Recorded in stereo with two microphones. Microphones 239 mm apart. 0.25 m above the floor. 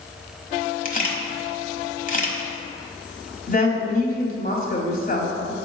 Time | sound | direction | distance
0.8 | a camera shutter | 35° left (ahead or behind) | 1.0 m
3.5 | a woman speaking | 35° left (ahead or behind) | 1.3 m